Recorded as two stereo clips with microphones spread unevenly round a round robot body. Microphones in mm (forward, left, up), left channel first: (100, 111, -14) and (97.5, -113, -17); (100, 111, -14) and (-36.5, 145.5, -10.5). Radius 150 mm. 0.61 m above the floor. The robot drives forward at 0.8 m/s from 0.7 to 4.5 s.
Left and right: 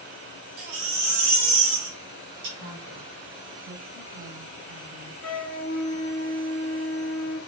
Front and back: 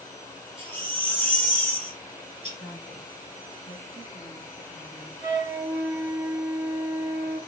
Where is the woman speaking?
90° right, 5.5 m; by 5.1 s 105° right, 5.5 m.